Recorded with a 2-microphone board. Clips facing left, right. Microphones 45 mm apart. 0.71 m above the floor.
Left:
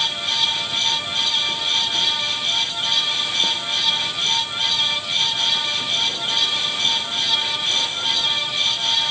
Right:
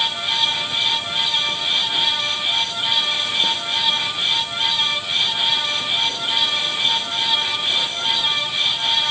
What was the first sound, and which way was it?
Only background noise.